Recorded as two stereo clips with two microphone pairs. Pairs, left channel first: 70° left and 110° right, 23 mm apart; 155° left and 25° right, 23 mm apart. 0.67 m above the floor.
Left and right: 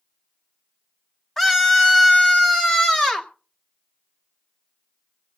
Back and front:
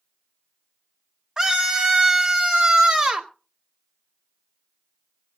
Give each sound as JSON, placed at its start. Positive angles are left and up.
{"t": 1.4, "sound": "a scream", "azimuth_deg": 15, "distance_m": 1.3}